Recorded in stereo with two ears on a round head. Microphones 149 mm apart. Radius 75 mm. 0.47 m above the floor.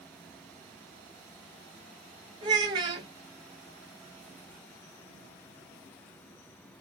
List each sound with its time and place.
2.4 s a child speaking: 25° right (ahead or behind), 1.7 m